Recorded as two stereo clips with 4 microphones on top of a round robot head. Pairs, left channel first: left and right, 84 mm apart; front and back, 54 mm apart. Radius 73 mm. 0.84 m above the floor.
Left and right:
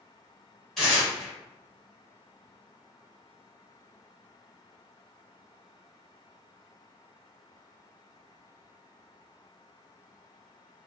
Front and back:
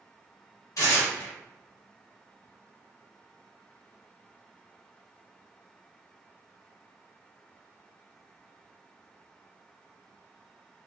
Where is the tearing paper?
5° left, 0.9 m.